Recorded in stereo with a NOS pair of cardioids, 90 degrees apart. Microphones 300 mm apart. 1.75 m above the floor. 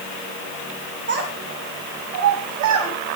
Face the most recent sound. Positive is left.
turn(degrees=-75)